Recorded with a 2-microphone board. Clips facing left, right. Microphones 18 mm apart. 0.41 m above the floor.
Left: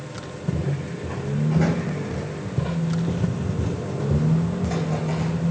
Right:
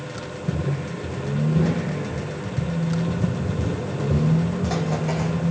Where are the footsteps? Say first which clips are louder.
Even; 60° left (ahead or behind), 1.8 m; by 5.5 s 35° right (ahead or behind), 1.3 m.